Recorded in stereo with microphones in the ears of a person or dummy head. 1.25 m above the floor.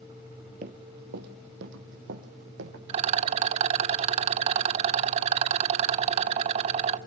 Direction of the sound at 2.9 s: 40° right (ahead or behind).